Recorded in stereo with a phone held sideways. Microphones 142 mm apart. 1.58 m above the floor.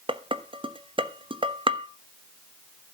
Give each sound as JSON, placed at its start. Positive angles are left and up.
{"t": 0.1, "sound": "dishes clattering", "side_deg": -40, "distance_m": 1.0}